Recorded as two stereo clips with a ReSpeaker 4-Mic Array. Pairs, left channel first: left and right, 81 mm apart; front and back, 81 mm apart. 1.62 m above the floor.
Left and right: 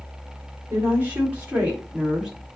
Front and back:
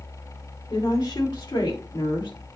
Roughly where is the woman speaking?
Ahead right.